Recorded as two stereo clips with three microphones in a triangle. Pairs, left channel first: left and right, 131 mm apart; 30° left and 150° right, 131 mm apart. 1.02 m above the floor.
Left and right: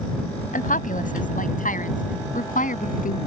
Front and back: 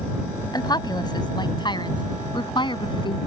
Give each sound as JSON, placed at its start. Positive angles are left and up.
{"t": 0.5, "sound": "a woman speaking", "azimuth_deg": 90}